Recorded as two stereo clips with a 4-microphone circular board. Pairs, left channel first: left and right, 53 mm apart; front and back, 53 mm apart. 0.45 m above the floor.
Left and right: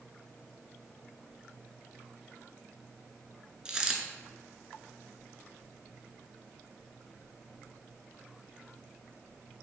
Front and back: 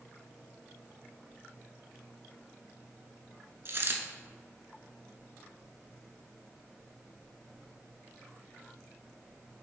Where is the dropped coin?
160° right, 0.5 m.